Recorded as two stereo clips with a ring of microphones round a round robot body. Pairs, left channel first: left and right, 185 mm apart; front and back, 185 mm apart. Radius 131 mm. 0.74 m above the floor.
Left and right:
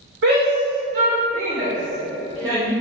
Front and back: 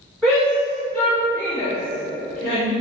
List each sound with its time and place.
0.2 s a shout: 85° right, 1.7 m; by 2.7 s 30° right, 2.5 m